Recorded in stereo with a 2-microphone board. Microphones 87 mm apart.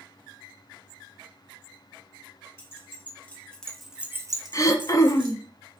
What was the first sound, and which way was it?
Keys jangling, 25° left (ahead or behind).